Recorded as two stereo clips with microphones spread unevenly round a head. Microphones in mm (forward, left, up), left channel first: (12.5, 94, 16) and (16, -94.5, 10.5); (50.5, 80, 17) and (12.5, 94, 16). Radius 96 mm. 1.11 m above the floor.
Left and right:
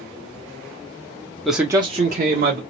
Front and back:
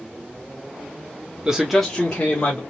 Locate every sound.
1.4 s a man speaking: straight behind, 0.8 m; by 2.6 s 80° right, 1.2 m